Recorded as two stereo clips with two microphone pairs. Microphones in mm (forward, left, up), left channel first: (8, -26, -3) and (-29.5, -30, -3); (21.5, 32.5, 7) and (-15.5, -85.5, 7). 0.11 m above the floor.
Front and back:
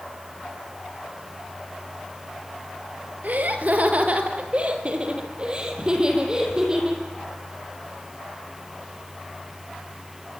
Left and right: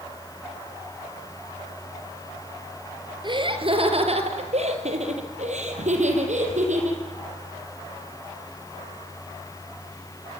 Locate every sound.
3.2 s laughter: 150° right, 3 m; by 7.0 s 100° right, 6 m